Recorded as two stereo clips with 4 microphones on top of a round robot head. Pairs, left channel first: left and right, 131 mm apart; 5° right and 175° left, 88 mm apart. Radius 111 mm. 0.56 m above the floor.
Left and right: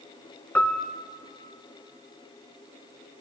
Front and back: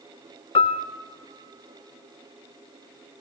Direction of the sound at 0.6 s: 10° left.